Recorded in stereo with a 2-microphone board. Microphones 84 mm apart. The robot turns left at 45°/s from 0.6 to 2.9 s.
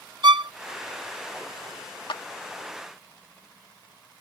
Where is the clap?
80° left; by 2.2 s 85° left.